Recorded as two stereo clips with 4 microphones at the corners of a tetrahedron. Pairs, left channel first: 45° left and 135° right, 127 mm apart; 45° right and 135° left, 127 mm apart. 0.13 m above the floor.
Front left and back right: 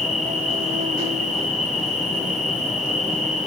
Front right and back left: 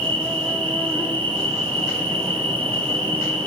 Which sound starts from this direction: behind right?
An insect, at 0.0 s.